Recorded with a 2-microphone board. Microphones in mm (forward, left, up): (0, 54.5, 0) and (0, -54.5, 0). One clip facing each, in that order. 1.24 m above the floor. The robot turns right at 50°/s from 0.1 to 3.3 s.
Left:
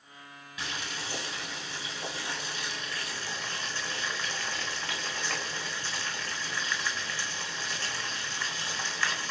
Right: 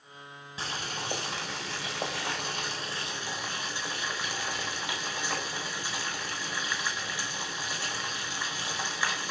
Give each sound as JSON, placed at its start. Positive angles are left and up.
{"t": 0.6, "sound": "boiling", "azimuth_deg": -150, "distance_m": 4.0}